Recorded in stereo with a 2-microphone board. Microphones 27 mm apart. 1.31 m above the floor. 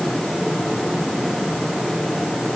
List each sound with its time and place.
Only background noise.